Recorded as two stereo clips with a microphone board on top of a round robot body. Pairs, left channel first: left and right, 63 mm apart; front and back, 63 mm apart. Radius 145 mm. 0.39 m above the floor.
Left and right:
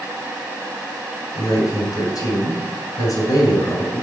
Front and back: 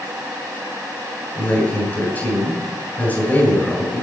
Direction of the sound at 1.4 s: 60° left.